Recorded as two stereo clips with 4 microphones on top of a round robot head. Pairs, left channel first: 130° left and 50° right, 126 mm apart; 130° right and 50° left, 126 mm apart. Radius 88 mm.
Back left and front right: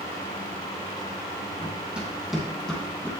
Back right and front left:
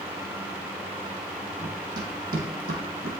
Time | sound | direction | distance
1.6 | running footsteps | 25° left | 3 m